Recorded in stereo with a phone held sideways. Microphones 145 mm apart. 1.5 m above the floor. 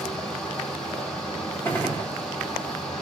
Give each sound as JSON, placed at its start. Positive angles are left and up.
{"t": 0.0, "sound": "a fan", "side_deg": 5, "distance_m": 1.1}
{"t": 1.6, "sound": "a gunshot", "side_deg": 15, "distance_m": 1.2}